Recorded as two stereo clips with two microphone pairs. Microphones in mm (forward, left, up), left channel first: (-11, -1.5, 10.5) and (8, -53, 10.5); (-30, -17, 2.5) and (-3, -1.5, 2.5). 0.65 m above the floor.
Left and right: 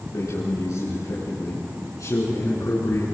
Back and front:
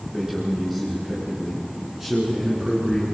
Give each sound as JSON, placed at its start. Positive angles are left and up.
{"t": 0.1, "sound": "a man speaking", "azimuth_deg": 110, "distance_m": 7.5}